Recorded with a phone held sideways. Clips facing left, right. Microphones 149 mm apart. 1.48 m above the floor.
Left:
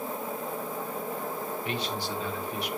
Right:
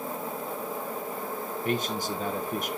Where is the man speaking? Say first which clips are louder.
Right 7 dB; 50° right (ahead or behind), 1.1 m.